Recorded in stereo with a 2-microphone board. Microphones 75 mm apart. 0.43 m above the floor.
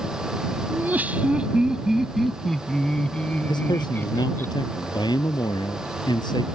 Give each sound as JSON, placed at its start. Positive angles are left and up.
{"t": 0.7, "sound": "laughter", "side_deg": -25}
{"t": 3.5, "sound": "a man speaking", "side_deg": 75}